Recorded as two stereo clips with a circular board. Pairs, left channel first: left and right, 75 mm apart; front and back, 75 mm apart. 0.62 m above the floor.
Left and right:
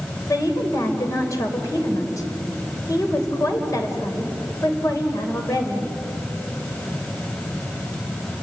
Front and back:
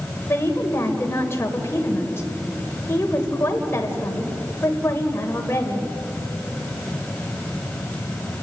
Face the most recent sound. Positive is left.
turn(degrees=55)